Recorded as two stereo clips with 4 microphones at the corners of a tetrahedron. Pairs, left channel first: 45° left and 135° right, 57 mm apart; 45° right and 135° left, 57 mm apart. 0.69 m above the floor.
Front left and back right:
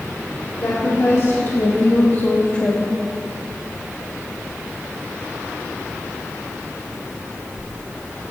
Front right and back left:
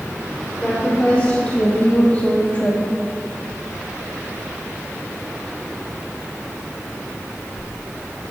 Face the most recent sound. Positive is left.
turn(degrees=-30)